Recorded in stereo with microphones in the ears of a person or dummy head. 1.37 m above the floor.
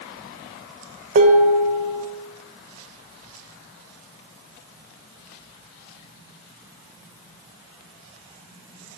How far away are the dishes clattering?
About 0.8 m.